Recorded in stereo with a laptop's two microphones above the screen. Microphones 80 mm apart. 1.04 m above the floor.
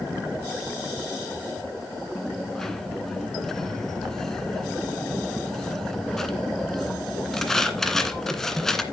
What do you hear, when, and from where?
2.1 s a dropped coin: 5° left (ahead or behind), 1.9 m